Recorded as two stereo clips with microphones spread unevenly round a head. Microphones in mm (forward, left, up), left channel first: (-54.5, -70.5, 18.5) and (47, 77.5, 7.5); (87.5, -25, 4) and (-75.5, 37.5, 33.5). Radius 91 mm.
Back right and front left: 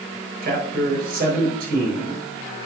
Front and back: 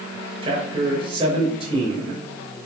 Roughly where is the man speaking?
Left.